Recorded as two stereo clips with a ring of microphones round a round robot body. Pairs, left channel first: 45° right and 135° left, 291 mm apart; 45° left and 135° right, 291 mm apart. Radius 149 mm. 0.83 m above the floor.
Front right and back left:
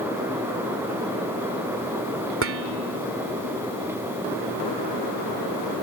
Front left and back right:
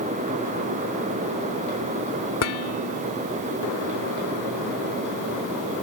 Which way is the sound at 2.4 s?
85° left.